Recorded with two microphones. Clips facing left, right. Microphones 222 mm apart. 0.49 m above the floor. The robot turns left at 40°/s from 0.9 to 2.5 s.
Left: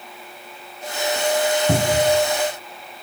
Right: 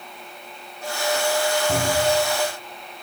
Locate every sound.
1.7 s a cupboard door: 65° left (ahead or behind), 2.0 m; by 2.2 s 45° left (ahead or behind), 2.0 m